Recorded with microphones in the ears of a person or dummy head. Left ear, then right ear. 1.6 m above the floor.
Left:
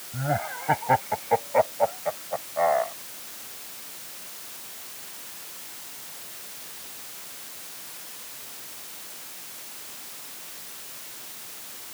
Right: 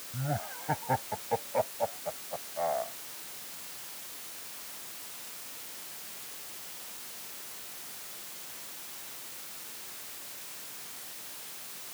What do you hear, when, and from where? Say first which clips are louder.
0.1 s laughter: left 9 dB; 85° left; by 2.9 s 80° left